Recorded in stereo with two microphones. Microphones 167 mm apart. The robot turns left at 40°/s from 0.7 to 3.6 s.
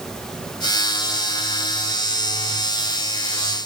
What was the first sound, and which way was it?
Only background noise.